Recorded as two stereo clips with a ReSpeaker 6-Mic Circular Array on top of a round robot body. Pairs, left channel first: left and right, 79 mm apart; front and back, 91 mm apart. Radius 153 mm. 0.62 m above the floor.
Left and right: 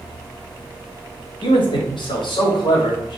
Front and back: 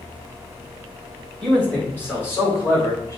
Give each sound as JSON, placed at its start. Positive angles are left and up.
{"t": 1.4, "sound": "a man speaking", "azimuth_deg": 80, "distance_m": 2.5}